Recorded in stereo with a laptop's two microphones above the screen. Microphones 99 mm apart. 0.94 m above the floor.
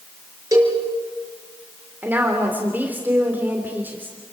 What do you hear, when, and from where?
0.5 s a cowbell: 35° right (ahead or behind), 6.5 m
2.0 s a woman speaking: 20° right (ahead or behind), 3.5 m